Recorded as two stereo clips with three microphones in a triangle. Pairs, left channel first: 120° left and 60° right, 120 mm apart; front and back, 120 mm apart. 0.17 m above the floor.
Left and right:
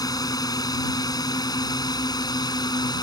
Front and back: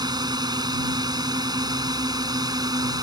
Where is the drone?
155° left; by 3.0 s 150° left.